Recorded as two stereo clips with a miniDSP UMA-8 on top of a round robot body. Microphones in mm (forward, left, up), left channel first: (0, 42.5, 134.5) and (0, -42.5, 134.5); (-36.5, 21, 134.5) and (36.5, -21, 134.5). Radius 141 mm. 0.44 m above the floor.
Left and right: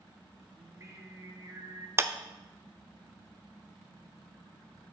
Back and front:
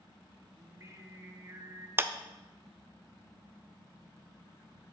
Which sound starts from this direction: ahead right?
Singing, at 0.6 s.